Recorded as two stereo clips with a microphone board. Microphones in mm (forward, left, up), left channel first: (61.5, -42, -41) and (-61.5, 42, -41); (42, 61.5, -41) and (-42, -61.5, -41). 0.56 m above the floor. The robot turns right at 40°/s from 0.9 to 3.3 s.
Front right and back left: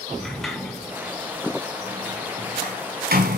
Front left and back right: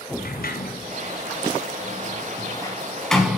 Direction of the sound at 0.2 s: 55° left.